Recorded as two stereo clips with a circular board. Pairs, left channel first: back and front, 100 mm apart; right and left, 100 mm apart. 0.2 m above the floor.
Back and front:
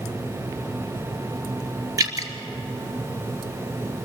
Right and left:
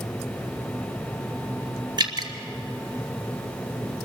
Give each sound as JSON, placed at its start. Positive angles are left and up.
{"t": 2.0, "sound": "dripping", "azimuth_deg": 50, "distance_m": 1.9}